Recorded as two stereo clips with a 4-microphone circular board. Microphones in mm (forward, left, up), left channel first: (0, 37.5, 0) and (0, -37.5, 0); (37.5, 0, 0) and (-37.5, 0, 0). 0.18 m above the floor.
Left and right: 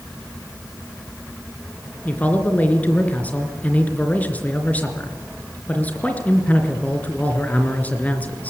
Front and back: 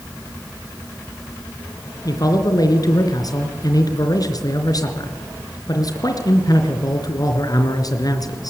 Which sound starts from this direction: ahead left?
A man speaking, at 2.0 s.